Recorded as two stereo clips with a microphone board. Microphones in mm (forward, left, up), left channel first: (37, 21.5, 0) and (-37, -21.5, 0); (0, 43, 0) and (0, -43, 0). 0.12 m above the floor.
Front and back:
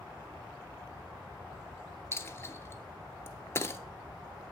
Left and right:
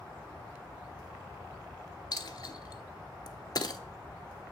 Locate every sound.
2.1 s a dropped coin: 80° left, 0.6 m